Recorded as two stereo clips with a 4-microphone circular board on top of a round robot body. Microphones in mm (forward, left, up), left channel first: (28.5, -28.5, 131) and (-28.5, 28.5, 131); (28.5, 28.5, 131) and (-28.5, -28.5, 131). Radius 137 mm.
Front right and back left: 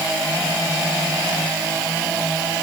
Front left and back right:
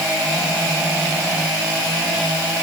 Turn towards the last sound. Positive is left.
No sound to turn to.